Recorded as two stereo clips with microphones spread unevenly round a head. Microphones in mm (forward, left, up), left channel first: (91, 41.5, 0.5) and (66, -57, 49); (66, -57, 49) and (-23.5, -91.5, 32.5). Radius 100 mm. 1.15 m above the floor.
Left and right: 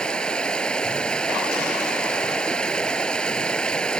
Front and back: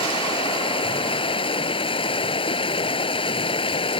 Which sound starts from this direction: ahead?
Running water, at 0.0 s.